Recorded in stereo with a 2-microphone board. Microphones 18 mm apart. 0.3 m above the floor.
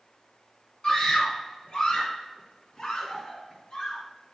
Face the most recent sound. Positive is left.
turn(degrees=75)  # may be behind; listen again after turning